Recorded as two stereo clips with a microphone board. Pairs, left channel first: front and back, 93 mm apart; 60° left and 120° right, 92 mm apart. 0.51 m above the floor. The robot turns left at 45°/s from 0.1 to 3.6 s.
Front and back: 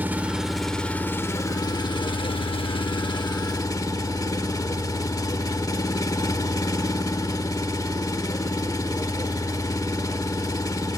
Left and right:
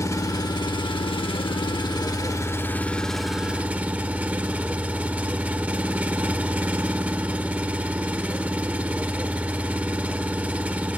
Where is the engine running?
110° left, 0.9 m; by 11.0 s 45° right, 0.9 m.